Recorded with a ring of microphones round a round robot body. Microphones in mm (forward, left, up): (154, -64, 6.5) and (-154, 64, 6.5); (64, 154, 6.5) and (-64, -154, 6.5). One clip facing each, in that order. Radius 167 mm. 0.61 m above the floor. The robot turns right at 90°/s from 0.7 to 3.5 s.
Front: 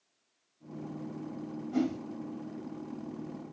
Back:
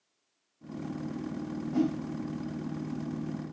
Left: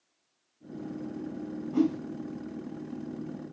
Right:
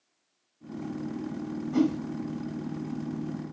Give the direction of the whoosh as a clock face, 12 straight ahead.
3 o'clock.